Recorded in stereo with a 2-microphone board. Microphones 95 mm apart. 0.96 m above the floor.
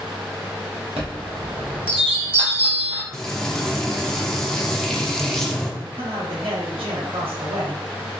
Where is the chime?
75° right (ahead or behind), 1.1 m.